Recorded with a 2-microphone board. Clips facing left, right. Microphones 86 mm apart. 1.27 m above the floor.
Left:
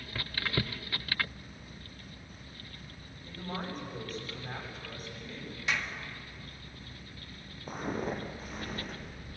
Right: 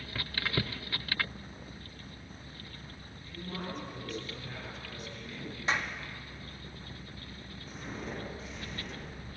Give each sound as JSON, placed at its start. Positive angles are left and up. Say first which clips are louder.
{"t": 3.2, "sound": "a man speaking", "louder": "left 2 dB", "side_deg": 45, "distance_m": 8.5}
{"t": 5.7, "sound": "a clap", "louder": "right 2 dB", "side_deg": -35, "distance_m": 1.7}
{"t": 7.7, "sound": "footsteps", "louder": "left 7 dB", "side_deg": 55, "distance_m": 3.5}